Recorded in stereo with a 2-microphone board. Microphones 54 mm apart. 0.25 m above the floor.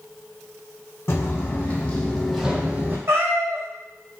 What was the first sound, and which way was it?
Footsteps, 45° left (ahead or behind).